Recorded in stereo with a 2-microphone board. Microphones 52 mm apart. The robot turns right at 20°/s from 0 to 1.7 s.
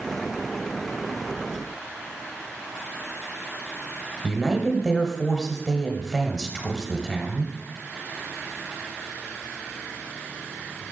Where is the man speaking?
5° left (ahead or behind), 1.1 m.